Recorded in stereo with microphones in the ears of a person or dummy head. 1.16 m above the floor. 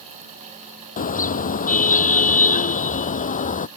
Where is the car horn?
40° left (ahead or behind).